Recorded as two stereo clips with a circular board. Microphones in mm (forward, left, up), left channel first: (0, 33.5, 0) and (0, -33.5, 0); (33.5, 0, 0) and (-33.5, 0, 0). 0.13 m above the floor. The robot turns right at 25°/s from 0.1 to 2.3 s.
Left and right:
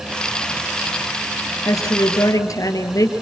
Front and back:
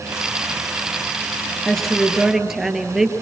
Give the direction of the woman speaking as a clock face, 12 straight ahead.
9 o'clock.